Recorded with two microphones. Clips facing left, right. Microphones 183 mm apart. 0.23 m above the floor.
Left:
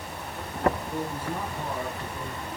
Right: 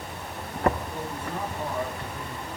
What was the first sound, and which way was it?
A man speaking, 5° left (ahead or behind).